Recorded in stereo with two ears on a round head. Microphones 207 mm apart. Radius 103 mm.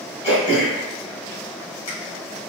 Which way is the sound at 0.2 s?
30° left (ahead or behind).